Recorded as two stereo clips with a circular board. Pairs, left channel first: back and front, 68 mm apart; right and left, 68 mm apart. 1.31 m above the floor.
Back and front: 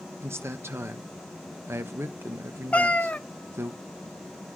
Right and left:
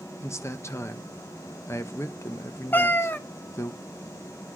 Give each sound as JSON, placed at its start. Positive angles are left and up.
{"t": 0.2, "sound": "a man speaking", "azimuth_deg": -50, "distance_m": 1.0}
{"t": 2.7, "sound": "a cat meowing", "azimuth_deg": -125, "distance_m": 0.5}